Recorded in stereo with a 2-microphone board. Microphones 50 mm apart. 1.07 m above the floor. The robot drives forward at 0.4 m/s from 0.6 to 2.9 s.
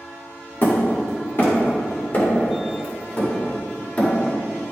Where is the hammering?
50° left (ahead or behind), 2.0 m; by 4.1 s 35° left (ahead or behind), 2.5 m.